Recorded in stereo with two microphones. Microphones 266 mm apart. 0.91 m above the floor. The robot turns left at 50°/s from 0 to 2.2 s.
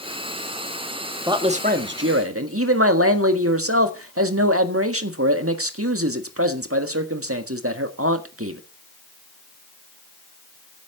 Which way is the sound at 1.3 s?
15° right.